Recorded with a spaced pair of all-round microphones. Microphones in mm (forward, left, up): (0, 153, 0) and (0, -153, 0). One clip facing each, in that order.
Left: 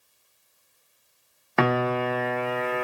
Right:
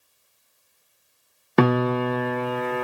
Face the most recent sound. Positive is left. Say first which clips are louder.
# right 4 dB
turn(degrees=-45)  # may be behind; listen again after turning